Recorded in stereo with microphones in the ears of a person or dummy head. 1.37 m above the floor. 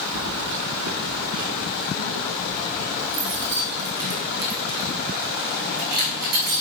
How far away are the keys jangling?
About 1.7 m.